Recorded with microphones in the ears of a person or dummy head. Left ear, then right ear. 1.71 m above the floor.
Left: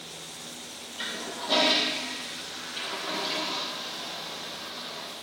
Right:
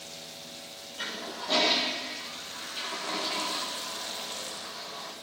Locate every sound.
1.0 s a toilet flushing: 5° right (ahead or behind), 1.8 m